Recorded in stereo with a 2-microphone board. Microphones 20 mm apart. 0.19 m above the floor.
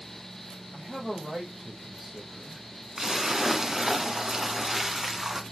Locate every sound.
0.7 s a man speaking: 20° right (ahead or behind), 6.5 m
3.0 s a splash: 35° right (ahead or behind), 1.3 m